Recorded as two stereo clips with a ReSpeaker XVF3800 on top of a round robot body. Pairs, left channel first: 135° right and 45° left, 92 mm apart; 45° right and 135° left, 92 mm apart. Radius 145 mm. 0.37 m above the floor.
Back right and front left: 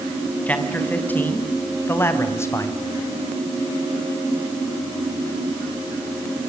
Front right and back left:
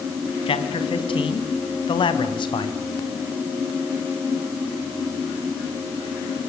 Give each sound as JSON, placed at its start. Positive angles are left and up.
{"t": 0.5, "sound": "a man speaking", "azimuth_deg": -60, "distance_m": 4.0}